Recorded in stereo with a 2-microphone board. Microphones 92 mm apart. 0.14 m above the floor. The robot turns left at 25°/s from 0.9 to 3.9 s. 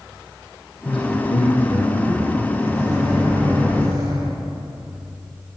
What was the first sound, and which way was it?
A man speaking, 80° left.